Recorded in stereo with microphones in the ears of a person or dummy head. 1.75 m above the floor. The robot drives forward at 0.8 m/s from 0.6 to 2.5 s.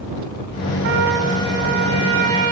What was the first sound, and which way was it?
A trumpet, 55° right (ahead or behind).